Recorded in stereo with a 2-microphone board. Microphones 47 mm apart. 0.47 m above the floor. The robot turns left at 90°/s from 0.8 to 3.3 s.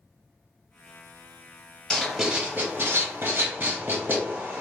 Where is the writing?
15° left (ahead or behind), 0.8 m; by 4.6 s 50° right (ahead or behind), 0.8 m.